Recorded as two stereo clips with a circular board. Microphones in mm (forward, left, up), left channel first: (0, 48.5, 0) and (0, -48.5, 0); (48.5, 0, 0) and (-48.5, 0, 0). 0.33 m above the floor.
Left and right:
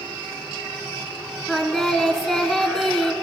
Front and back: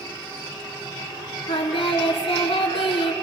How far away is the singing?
About 0.7 m.